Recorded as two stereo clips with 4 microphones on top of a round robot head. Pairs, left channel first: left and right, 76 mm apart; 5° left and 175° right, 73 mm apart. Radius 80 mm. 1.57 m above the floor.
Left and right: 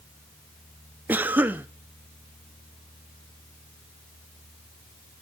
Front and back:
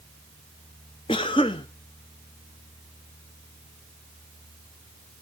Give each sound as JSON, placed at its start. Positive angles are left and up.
{"t": 1.1, "sound": "a cough", "azimuth_deg": -25, "distance_m": 0.6}